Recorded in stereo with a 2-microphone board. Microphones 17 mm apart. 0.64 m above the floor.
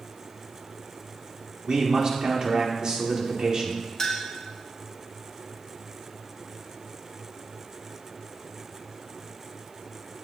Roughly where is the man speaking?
Right.